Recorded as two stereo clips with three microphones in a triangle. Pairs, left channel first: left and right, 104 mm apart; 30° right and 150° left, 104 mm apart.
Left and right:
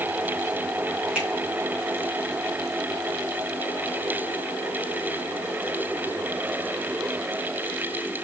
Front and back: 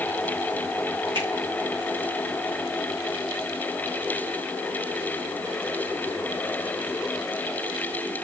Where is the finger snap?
170° right, 4 m.